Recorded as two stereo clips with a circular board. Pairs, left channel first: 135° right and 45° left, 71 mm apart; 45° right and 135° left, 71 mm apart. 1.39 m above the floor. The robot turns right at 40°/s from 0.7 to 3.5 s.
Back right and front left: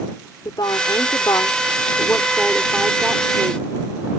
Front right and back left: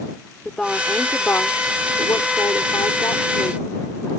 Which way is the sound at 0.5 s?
125° right.